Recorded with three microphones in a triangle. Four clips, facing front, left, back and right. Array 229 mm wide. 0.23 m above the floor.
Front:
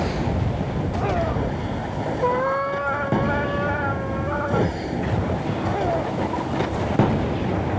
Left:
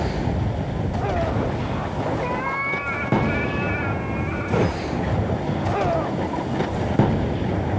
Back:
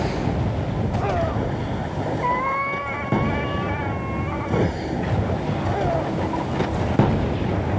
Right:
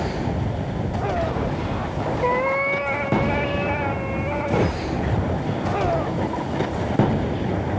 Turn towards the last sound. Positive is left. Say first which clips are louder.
# right 4 dB, front 2 dB
turn(degrees=-50)